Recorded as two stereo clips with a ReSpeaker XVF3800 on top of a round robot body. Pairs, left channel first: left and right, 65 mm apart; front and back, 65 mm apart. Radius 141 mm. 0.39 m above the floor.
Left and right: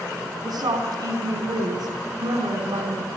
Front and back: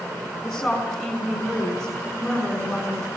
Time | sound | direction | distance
0.4 | a woman speaking | 85° right | 5 m